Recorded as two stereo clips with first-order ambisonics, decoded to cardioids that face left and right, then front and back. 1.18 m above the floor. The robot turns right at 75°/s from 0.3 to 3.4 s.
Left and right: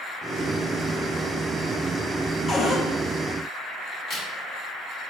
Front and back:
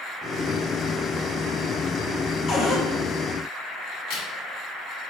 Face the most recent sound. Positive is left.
turn(degrees=35)